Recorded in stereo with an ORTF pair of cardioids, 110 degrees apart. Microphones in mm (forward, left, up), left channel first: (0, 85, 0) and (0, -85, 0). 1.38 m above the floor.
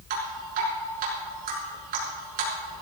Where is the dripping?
65° right, 6 m.